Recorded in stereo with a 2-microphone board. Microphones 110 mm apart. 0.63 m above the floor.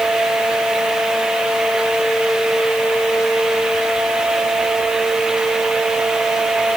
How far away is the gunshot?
I don't hear a gunshot.